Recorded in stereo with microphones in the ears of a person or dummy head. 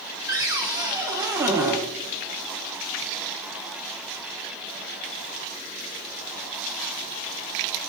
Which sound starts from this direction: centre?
A cupboard door, at 0.3 s.